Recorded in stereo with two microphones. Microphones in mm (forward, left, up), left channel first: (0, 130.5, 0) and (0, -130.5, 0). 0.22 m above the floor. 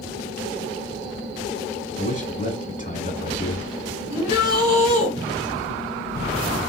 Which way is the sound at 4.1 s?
15° right (ahead or behind).